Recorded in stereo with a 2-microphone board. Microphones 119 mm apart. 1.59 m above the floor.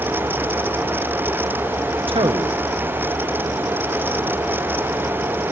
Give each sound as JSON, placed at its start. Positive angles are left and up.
{"t": 2.1, "sound": "a man speaking", "side_deg": -50, "distance_m": 1.1}